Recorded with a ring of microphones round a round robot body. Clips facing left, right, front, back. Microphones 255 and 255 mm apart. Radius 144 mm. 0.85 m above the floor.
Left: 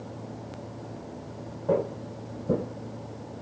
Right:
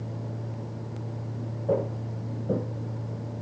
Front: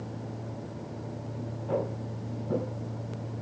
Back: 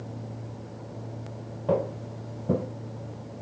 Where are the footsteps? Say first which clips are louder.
Left 1 dB, back 5 dB; 175° left, 1.6 m.